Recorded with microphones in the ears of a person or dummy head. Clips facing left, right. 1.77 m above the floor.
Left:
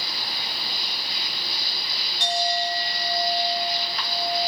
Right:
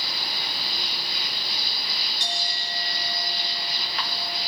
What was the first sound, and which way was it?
A clink, 50° left (ahead or behind).